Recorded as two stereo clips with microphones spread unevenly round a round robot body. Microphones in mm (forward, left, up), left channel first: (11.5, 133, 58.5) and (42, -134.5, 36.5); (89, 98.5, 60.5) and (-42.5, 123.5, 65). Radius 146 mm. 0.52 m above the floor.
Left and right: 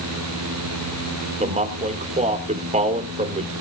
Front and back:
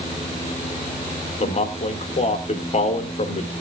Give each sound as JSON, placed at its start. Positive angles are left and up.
{"t": 1.4, "sound": "a man speaking", "azimuth_deg": -25, "distance_m": 1.6}